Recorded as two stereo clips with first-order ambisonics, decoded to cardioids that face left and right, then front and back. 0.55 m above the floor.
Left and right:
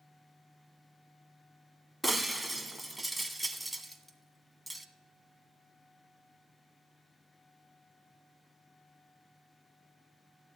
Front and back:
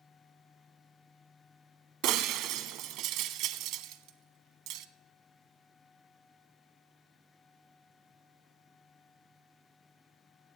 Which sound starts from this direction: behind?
Breaking glass, at 2.0 s.